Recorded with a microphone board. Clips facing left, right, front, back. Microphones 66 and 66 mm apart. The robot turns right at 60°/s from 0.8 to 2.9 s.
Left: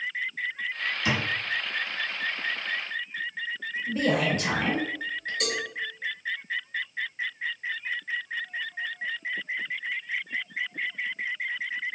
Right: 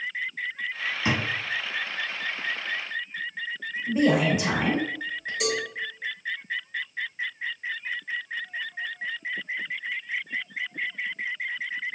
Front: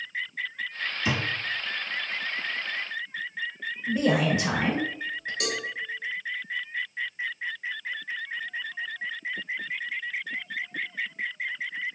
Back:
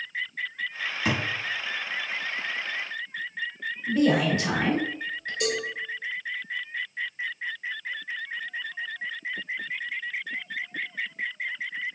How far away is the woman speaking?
About 0.9 m.